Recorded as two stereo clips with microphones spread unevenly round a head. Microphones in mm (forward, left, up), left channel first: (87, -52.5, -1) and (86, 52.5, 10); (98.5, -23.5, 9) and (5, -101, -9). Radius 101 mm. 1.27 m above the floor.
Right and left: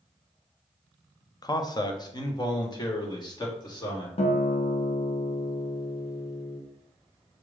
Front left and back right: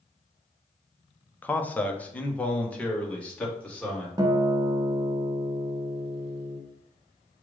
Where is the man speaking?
40° right, 0.7 m.